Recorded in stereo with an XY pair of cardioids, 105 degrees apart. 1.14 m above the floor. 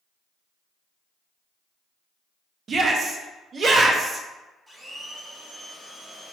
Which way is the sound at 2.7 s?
45° right.